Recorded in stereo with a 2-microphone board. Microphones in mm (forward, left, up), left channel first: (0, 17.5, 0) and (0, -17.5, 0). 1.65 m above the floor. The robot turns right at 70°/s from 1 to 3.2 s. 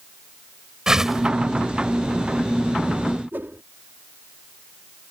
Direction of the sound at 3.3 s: 80° right.